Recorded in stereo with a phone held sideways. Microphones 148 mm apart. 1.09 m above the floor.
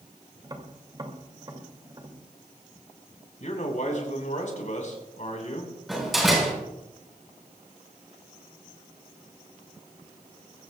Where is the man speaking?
60° left (ahead or behind), 5 m.